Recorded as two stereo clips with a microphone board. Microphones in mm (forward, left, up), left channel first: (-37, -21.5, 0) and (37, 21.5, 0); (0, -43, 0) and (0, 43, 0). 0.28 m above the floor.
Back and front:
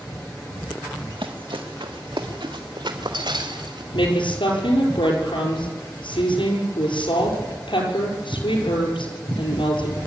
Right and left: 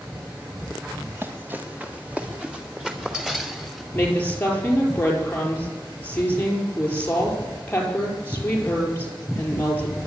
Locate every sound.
1.1 s running footsteps: 25° left, 2.5 m; by 3.8 s straight ahead, 4 m
3.9 s a woman speaking: 160° right, 6 m